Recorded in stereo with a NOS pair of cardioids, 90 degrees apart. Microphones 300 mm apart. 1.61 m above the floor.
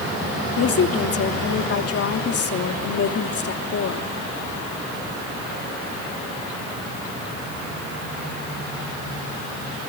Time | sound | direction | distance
0.6 | a woman speaking | 55° left | 3 m